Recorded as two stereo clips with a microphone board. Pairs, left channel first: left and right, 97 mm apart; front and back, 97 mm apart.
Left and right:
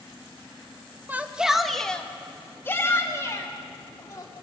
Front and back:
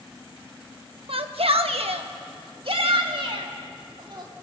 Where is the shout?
160° right, 1.2 m; by 4.3 s 140° left, 3 m.